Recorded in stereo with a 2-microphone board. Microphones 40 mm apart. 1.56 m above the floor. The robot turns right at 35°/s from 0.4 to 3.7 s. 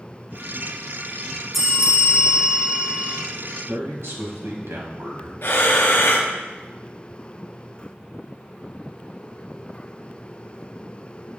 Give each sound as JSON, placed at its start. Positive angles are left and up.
{"t": 1.5, "sound": "a bell", "azimuth_deg": -175, "distance_m": 1.8}
{"t": 3.7, "sound": "a man speaking", "side_deg": -85, "distance_m": 1.7}
{"t": 5.4, "sound": "breathing", "side_deg": 75, "distance_m": 1.2}